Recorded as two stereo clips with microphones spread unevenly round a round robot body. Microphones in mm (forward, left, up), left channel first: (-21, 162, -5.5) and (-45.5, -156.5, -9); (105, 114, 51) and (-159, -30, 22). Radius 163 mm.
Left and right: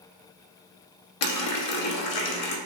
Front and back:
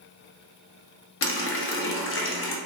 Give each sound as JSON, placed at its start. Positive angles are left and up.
{"t": 1.2, "sound": "a running tap", "azimuth_deg": 80, "distance_m": 0.6}